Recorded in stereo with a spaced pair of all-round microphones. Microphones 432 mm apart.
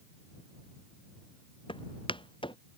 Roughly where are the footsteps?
Centre.